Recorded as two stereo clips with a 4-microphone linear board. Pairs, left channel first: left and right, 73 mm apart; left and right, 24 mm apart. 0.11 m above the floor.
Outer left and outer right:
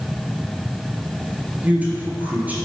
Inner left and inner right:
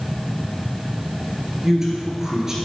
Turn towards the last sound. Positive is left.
turn(degrees=-20)  # may be behind; listen again after turning